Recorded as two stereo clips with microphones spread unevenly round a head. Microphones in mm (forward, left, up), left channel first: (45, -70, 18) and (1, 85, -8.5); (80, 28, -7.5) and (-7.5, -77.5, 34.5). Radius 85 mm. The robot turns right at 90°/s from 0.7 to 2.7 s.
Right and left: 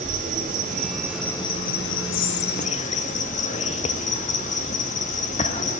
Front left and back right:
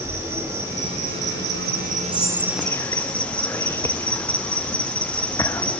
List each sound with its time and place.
0.0 s an insect: 150° left, 1.5 m; by 5.8 s 30° right, 1.5 m
2.1 s whispering: 70° right, 0.9 m; by 5.7 s 20° right, 0.9 m